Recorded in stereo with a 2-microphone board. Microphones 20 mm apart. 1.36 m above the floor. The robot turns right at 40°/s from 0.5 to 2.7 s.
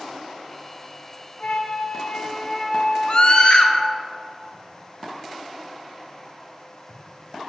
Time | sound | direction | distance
1.4 | a flute | 120° left | 0.5 m
3.1 | a scream | 45° left (ahead or behind) | 0.8 m